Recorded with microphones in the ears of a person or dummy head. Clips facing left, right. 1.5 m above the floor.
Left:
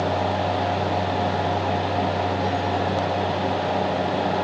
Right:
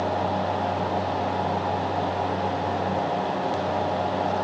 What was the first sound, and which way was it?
Only background noise.